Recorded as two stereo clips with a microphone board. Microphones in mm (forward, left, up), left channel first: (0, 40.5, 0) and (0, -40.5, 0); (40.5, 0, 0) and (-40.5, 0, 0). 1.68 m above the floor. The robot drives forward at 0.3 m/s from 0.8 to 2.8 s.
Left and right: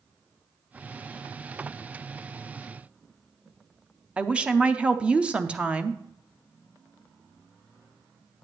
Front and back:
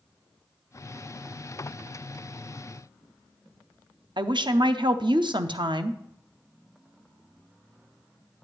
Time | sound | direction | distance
4.2 | a woman speaking | 165° right | 0.6 m